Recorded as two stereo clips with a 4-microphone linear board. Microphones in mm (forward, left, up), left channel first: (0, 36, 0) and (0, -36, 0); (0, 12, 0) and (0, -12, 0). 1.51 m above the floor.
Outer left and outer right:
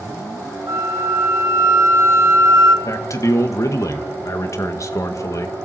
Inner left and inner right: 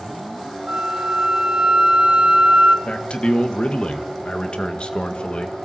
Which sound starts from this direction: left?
A man speaking, at 2.9 s.